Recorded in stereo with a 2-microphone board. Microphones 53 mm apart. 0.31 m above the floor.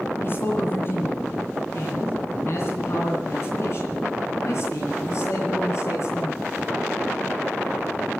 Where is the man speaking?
50° left (ahead or behind), 2.5 m; by 6.4 s 65° left (ahead or behind), 5.5 m.